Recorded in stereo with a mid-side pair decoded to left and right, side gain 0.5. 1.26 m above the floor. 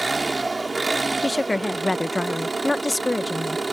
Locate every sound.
0.0 s an engine running: 20° right
1.2 s a woman speaking: 10° left